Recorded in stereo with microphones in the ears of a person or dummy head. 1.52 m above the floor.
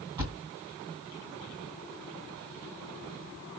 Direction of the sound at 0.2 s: 25° right (ahead or behind).